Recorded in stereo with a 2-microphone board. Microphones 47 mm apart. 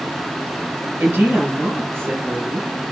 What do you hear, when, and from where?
1.0 s a woman speaking: 60° right (ahead or behind), 1.9 m